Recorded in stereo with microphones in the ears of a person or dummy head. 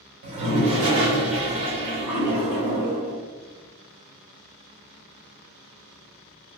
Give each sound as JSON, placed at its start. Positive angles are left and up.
{"t": 0.2, "sound": "a toilet flushing", "side_deg": -70, "distance_m": 1.5}